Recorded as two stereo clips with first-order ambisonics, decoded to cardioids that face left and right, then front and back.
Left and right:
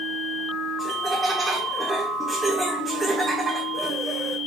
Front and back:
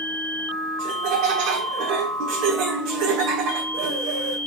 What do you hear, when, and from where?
0.8 s laughter: 170° right, 1.3 m